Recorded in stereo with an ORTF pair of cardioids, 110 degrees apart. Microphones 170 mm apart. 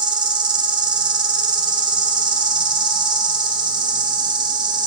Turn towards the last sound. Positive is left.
turn(degrees=-25)